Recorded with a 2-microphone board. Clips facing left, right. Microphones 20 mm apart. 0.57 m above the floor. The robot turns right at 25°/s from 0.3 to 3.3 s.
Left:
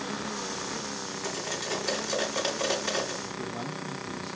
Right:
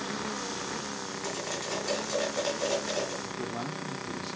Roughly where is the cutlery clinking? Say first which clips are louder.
Left 2 dB; centre.